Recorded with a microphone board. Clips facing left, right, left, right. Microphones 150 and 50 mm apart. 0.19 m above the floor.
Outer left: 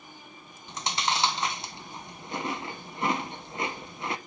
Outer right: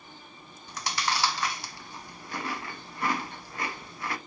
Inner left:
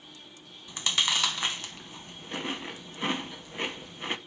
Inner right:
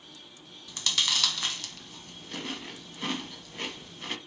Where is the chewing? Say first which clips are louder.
Outer left 1 dB, inner left 2 dB; 20° left (ahead or behind), 0.6 m.